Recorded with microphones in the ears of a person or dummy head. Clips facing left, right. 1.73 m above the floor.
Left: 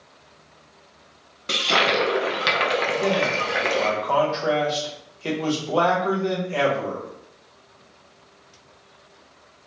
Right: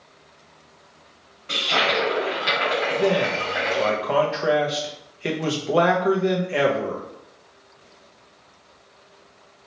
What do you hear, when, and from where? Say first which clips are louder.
1.5 s a toilet flushing: left 1 dB; 70° left (ahead or behind), 0.7 m
2.9 s a man speaking: right 5 dB; 25° right (ahead or behind), 0.6 m